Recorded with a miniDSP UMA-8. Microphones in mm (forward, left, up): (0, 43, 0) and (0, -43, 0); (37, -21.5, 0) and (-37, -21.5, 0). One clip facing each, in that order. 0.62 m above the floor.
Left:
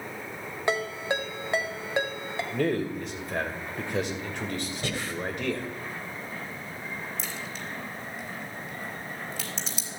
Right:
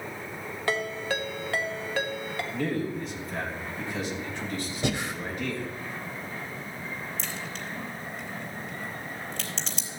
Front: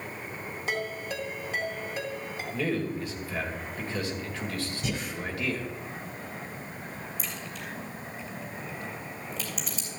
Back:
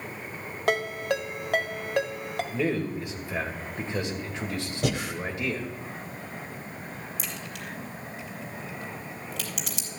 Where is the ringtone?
160° left, 1.4 m.